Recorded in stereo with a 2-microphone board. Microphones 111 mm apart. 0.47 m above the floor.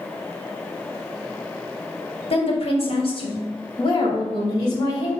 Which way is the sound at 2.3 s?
65° left (ahead or behind).